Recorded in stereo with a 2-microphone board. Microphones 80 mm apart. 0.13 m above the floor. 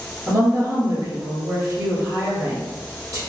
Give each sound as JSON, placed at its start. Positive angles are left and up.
{"t": 0.3, "sound": "a woman speaking", "side_deg": -50, "distance_m": 1.8}